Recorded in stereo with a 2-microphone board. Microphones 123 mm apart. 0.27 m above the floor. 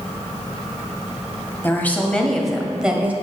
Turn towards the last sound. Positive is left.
turn(degrees=-15)  # may be behind; listen again after turning